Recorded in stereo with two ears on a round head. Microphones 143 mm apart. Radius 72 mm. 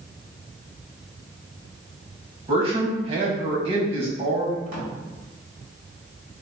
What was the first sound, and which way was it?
A man speaking, 35° right (ahead or behind).